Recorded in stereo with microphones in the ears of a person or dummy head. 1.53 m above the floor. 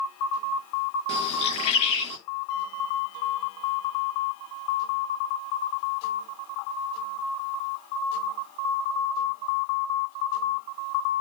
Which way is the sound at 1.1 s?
35° left (ahead or behind).